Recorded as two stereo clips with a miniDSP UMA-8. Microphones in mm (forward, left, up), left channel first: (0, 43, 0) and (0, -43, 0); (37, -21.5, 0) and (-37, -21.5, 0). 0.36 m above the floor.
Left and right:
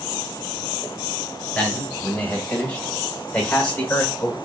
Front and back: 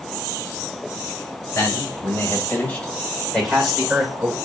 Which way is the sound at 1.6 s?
10° left.